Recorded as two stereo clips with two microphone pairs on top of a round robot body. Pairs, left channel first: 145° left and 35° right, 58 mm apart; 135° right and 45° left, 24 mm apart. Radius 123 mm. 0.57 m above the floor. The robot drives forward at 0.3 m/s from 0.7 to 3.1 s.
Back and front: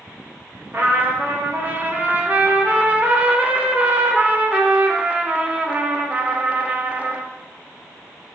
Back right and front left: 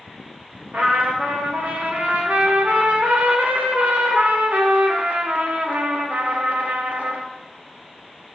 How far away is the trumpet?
About 2 m.